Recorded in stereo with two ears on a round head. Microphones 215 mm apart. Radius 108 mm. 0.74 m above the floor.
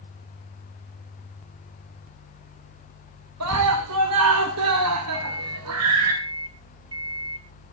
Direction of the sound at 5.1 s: 20° right (ahead or behind).